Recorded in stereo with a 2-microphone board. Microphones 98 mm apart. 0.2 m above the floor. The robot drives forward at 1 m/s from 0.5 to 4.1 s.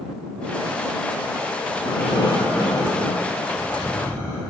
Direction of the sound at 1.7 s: 55° left (ahead or behind).